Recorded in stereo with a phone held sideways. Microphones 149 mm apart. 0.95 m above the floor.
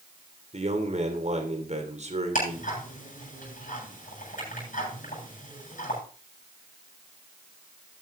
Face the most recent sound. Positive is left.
turn(degrees=65)  # may be behind; listen again after turning